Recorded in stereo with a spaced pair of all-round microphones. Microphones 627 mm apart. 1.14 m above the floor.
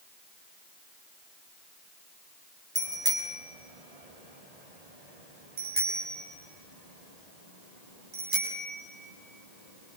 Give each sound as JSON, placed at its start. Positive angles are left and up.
{"t": 2.8, "sound": "a bicycle bell", "side_deg": -70, "distance_m": 4.0}